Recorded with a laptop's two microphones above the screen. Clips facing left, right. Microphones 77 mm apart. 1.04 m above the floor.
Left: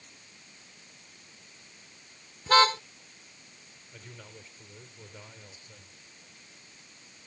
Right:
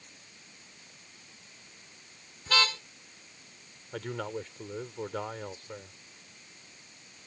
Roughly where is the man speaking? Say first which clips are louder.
Right 15 dB; right.